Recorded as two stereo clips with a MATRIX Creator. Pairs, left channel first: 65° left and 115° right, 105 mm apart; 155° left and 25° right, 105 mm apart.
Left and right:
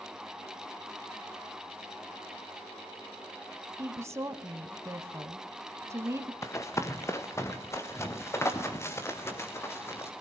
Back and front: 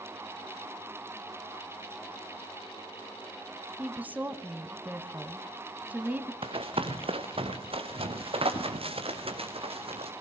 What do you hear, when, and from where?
3.8 s a woman speaking: 80° right, 1.2 m
6.4 s running footsteps: 5° left, 1.9 m